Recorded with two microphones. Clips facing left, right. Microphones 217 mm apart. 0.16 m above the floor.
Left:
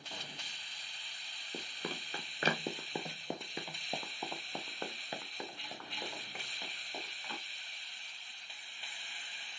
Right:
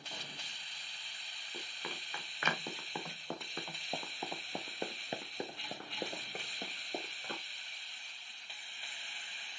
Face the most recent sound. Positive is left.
turn(degrees=-55)  # may be behind; listen again after turning